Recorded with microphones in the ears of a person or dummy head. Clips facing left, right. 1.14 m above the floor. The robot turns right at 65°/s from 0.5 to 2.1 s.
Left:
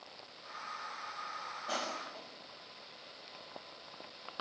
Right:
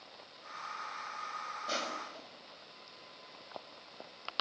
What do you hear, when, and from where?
1.7 s crushing: 35° right (ahead or behind), 6 m; by 2.3 s 5° right (ahead or behind), 6 m